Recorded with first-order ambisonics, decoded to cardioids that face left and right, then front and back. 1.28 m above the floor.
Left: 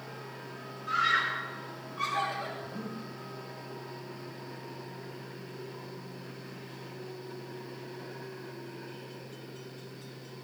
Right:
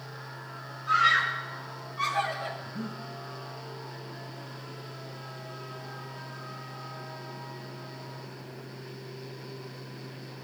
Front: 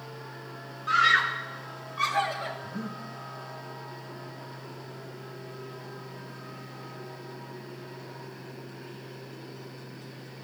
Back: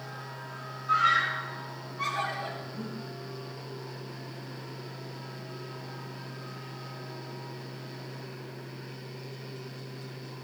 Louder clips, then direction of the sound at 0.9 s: Right 4 dB, front 2 dB; 5° right.